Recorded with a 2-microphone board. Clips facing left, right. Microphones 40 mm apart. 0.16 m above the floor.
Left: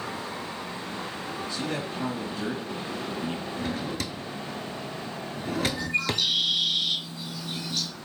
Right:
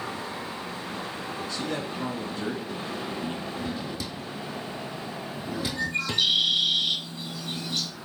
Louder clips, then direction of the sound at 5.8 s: Even; 60° right (ahead or behind).